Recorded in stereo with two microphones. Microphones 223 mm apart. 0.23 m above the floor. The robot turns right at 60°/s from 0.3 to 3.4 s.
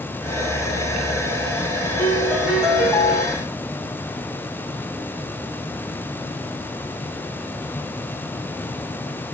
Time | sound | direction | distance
2.0 | a piano | 45° right | 1.7 m